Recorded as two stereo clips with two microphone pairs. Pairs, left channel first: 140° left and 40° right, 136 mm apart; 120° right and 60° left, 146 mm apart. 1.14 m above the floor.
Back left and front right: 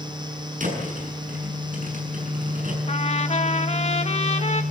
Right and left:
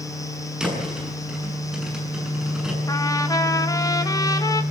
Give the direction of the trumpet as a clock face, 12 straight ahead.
6 o'clock.